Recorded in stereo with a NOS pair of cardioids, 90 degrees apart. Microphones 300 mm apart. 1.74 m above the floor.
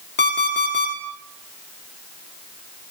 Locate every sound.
0.2 s an alarm clock: 35° left, 3 m